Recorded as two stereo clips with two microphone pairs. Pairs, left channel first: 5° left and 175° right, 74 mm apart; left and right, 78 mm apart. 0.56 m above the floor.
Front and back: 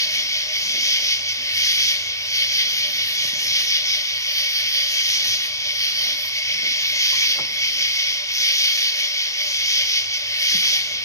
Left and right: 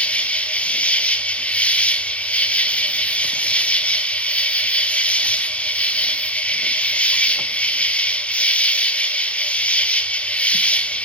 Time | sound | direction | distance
0.0 | an insect | 20° left | 1.1 m